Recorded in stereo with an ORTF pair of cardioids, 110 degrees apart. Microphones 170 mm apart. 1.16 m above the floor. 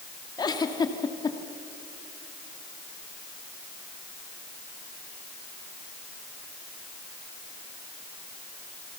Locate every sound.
0.4 s a giggle: 25° left, 2 m